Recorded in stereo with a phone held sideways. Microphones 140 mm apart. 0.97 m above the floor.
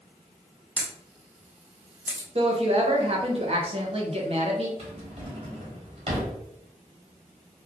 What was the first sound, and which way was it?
A camera shutter, 10° right (ahead or behind).